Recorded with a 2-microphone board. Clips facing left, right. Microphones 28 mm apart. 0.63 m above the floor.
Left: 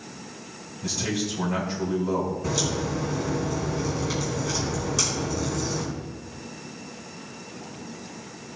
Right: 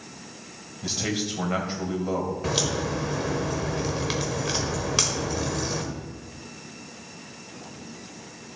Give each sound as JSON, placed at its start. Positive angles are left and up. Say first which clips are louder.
{"t": 0.8, "sound": "a man speaking", "louder": "even", "side_deg": -50, "distance_m": 3.0}
{"t": 2.4, "sound": "a crack", "louder": "right 1 dB", "side_deg": -60, "distance_m": 1.4}